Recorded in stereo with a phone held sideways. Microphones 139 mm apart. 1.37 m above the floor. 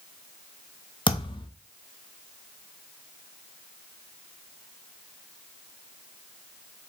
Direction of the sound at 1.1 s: 35° left (ahead or behind).